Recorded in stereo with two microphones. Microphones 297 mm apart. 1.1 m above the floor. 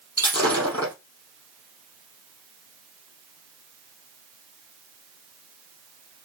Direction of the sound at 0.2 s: 60° left (ahead or behind).